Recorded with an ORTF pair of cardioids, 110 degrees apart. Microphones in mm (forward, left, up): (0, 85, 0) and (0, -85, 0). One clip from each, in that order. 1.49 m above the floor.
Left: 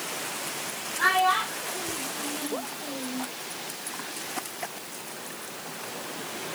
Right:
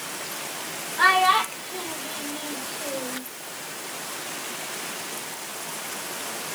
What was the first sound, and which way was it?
A child speaking, 50° right.